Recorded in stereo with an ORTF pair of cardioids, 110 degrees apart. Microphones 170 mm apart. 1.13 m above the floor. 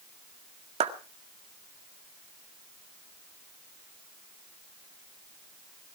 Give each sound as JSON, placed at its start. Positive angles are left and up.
{"t": 0.8, "sound": "a clap", "azimuth_deg": -40, "distance_m": 1.8}